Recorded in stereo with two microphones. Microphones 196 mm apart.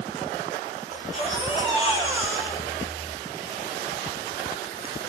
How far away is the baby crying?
About 4 m.